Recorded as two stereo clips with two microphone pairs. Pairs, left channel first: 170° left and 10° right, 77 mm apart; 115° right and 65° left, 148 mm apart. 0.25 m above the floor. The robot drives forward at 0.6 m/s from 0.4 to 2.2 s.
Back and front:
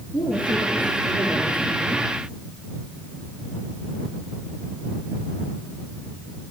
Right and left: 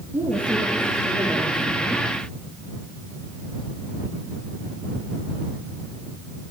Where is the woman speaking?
140° left, 4 m; by 2.0 s 145° left, 5 m.